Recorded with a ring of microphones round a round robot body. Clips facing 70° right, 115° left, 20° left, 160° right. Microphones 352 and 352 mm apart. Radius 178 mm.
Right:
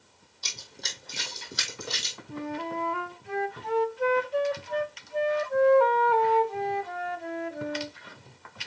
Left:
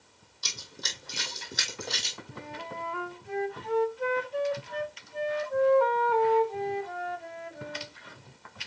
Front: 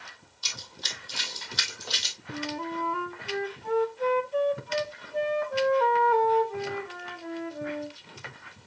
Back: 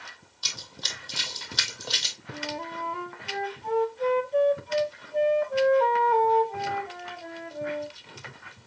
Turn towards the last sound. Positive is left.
turn(degrees=-50)